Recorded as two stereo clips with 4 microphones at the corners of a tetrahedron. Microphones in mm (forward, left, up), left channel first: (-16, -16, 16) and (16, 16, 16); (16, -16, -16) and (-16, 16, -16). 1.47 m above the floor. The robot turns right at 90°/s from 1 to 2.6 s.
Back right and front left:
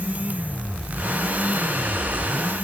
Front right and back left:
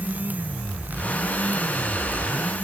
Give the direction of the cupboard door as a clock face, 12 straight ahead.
No cupboard door in this recording.